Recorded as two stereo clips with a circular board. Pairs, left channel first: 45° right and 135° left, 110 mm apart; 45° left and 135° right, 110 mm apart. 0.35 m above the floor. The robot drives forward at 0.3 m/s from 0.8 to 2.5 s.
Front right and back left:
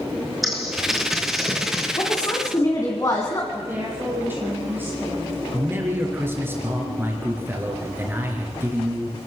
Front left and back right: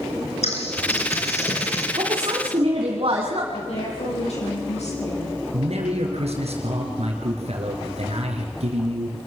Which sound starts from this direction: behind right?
A man speaking, at 5.5 s.